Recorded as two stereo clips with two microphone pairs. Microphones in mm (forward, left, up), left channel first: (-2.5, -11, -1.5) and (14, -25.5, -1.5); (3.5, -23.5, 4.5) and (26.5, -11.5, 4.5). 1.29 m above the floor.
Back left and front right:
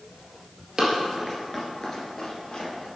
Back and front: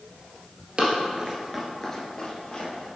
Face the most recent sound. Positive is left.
turn(degrees=165)